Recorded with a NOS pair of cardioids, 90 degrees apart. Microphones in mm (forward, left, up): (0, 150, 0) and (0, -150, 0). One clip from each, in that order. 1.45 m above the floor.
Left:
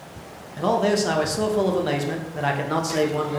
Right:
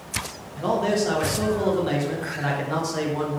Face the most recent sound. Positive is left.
turn(degrees=25)